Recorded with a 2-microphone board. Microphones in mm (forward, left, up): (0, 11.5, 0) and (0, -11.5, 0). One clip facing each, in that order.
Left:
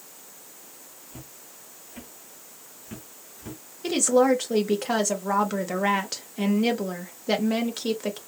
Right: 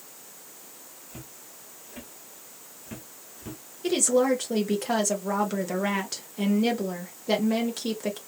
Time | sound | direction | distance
1.1 | footsteps | 20° right (ahead or behind) | 2 m
3.8 | a woman speaking | 15° left (ahead or behind) | 1.1 m